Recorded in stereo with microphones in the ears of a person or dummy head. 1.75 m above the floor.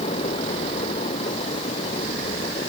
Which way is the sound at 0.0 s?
30° left (ahead or behind).